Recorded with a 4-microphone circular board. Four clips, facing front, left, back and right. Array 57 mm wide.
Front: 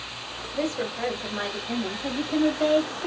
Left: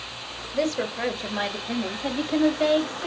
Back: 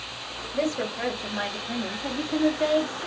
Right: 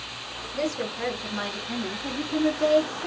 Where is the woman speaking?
90° left, 1.7 m; by 3.1 s 75° left, 3 m.